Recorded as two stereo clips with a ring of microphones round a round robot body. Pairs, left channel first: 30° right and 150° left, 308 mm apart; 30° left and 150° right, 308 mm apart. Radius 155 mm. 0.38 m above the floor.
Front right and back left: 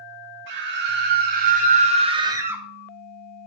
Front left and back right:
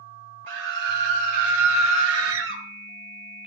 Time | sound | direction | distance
0.5 | a scream | 160° right | 3.5 m